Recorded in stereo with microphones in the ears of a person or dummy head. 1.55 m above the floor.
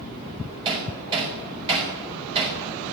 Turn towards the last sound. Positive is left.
turn(degrees=-30)  # may be behind; listen again after turning